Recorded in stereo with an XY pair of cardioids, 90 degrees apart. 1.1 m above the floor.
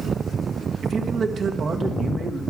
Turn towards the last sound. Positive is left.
turn(degrees=-60)